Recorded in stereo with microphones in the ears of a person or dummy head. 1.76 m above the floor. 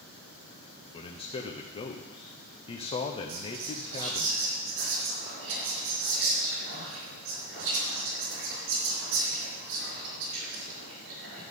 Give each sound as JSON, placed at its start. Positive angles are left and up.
{"t": 0.9, "sound": "a man speaking", "side_deg": 30, "distance_m": 0.8}
{"t": 3.3, "sound": "whispering", "side_deg": -75, "distance_m": 5.0}